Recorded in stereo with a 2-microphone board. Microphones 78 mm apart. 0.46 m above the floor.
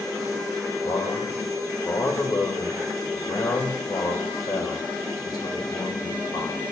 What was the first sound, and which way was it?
A man speaking, 60° left (ahead or behind).